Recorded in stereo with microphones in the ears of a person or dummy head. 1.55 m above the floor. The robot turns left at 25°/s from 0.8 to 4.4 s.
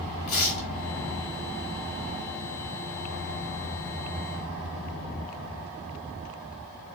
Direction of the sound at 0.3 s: 45° left (ahead or behind).